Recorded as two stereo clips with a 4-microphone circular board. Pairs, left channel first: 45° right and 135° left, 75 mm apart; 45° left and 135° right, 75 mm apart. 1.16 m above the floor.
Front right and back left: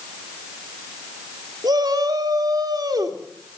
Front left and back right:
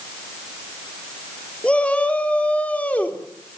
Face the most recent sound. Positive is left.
turn(degrees=115)